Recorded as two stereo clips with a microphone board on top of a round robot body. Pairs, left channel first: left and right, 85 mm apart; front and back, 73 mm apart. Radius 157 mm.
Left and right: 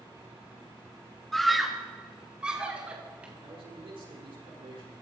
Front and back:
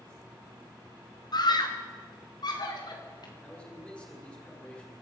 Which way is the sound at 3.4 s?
70° right.